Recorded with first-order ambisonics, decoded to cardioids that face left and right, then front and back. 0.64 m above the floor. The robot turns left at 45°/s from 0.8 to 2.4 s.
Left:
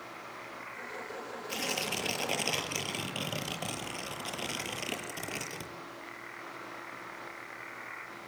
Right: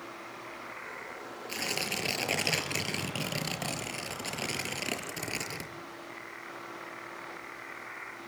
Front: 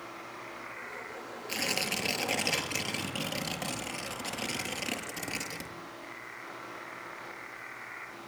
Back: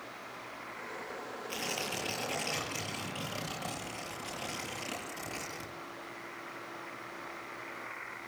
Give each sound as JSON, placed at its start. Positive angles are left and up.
{"t": 1.5, "sound": "tearing paper", "azimuth_deg": -20, "distance_m": 6.0}